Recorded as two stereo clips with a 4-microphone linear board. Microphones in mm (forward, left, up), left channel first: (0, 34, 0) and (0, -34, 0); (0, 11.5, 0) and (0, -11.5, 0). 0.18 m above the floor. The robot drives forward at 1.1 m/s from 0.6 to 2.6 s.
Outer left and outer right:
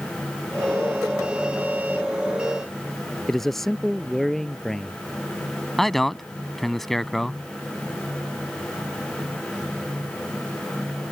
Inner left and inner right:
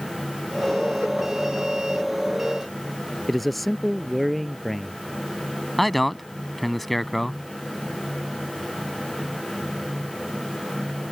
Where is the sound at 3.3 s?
5° left (ahead or behind).